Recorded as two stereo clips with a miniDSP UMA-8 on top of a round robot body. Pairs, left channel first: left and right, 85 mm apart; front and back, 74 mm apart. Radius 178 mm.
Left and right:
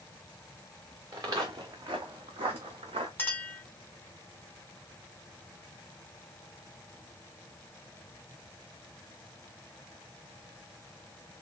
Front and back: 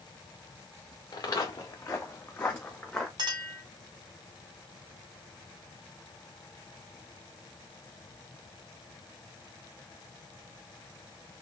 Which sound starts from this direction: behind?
A clink, at 3.2 s.